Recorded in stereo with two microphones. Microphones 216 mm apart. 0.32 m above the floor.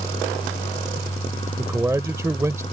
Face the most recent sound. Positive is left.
turn(degrees=-15)  # may be behind; listen again after turning